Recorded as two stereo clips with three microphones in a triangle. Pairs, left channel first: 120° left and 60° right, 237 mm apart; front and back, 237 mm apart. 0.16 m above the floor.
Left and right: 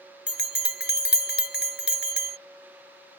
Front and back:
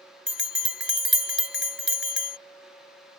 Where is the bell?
155° left.